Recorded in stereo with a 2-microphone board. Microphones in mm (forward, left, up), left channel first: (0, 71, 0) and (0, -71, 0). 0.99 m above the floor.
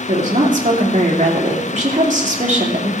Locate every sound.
0.1 s a woman speaking: 55° right (ahead or behind), 2.5 m